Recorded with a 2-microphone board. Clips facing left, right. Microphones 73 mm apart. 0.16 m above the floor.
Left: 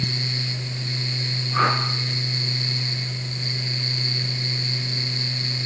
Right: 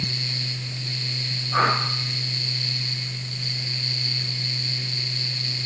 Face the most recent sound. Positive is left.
turn(degrees=-35)  # may be behind; listen again after turning